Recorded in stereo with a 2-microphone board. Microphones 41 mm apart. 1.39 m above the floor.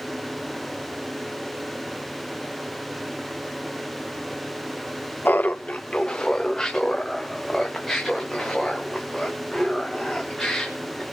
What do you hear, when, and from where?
5.2 s laughter: 55° left (ahead or behind), 0.5 m; by 11.0 s centre (ahead or behind), 4.5 m